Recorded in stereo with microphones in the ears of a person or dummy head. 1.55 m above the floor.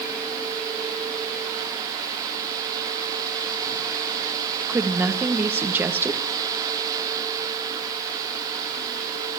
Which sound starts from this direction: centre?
A woman speaking, at 4.7 s.